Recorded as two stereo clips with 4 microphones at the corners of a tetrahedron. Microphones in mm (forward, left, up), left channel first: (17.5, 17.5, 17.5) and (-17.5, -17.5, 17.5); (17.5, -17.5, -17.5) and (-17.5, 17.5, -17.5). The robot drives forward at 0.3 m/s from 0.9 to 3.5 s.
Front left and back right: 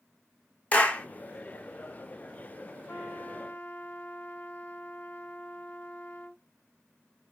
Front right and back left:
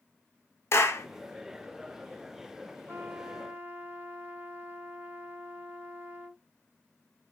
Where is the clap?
15° right, 0.8 m.